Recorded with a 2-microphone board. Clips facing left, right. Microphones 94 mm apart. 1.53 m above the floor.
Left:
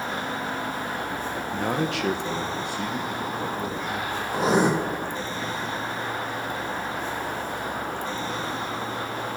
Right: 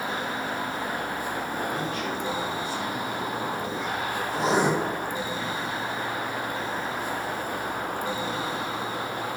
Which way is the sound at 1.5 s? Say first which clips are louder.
Left 3 dB; 70° left (ahead or behind).